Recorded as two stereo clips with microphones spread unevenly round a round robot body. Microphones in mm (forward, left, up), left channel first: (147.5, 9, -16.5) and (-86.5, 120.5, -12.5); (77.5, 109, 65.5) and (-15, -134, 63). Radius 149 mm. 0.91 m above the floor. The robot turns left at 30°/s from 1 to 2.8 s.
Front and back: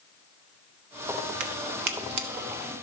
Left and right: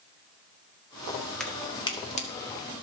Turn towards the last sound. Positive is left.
turn(degrees=115)